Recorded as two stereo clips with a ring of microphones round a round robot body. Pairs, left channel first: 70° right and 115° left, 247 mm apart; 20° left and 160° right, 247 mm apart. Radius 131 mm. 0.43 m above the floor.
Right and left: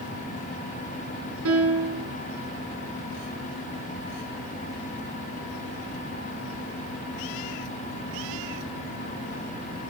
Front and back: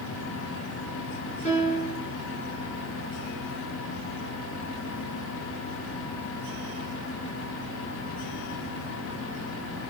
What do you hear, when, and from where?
1.4 s a piano: 90° left, 4 m